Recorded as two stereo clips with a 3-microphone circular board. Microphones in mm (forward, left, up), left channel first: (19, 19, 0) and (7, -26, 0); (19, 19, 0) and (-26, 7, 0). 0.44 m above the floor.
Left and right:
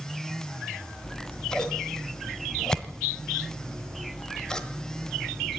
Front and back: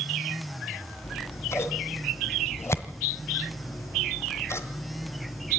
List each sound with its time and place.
1.0 s scissors: straight ahead, 1.6 m